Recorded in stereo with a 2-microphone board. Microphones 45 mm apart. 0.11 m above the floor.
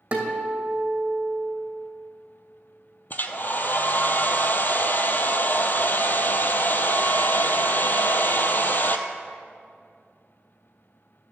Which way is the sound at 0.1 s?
35° right (ahead or behind).